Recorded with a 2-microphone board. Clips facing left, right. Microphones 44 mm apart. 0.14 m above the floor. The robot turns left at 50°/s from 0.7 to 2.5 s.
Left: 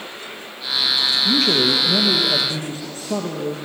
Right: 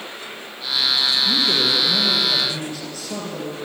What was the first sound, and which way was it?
A man speaking, 100° left.